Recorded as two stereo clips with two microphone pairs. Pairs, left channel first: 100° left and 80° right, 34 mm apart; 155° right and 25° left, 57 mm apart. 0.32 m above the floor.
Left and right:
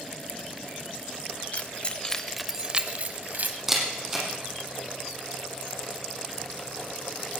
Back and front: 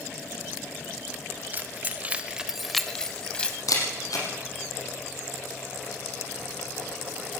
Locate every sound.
1.5 s keys jangling: 75° left, 1.4 m; by 3.6 s 85° right, 1.7 m
3.7 s a camera shutter: 160° right, 5.5 m